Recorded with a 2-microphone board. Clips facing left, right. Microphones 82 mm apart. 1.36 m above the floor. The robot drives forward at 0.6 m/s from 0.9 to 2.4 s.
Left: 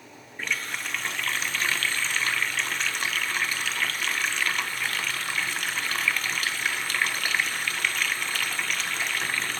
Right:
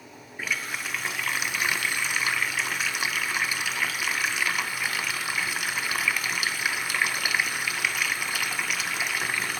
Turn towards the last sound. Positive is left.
turn(degrees=-10)  # may be behind; listen again after turning